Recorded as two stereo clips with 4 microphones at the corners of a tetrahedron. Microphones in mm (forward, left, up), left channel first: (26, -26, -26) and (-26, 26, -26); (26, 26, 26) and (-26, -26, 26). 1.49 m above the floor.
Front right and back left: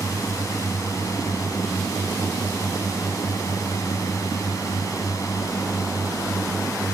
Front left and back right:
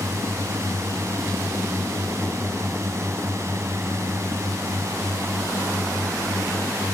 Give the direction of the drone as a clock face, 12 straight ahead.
3 o'clock.